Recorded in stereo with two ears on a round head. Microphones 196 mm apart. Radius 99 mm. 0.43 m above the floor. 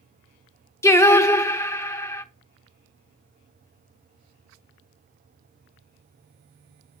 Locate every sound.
0.8 s singing: 10° left (ahead or behind), 0.5 m